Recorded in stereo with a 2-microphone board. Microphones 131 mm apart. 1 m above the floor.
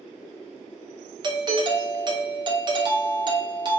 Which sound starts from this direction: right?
A doorbell, at 1.2 s.